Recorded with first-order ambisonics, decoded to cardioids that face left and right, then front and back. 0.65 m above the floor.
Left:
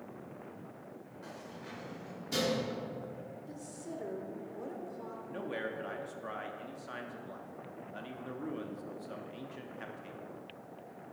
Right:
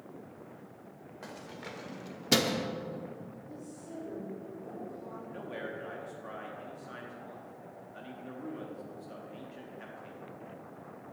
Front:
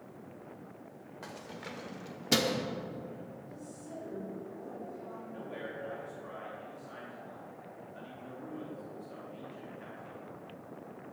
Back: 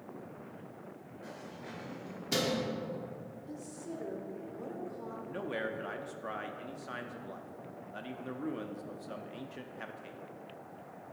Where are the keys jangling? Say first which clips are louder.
Right 4 dB, front 2 dB; 35° right, 1.5 m; by 2.7 s 85° right, 0.7 m.